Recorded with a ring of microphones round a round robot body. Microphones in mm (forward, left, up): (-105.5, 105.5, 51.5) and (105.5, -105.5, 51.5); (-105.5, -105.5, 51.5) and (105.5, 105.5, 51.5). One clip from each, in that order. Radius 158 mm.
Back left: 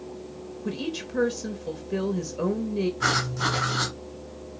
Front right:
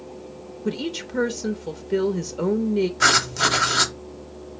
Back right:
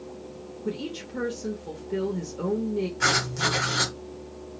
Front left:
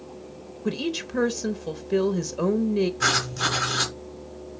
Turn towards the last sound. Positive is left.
turn(degrees=-45)